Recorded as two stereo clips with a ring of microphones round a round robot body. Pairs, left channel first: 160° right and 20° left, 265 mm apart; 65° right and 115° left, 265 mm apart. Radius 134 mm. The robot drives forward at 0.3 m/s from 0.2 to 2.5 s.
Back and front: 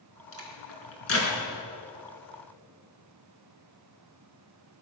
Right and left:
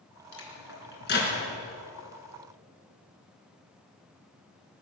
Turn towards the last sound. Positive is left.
turn(degrees=-125)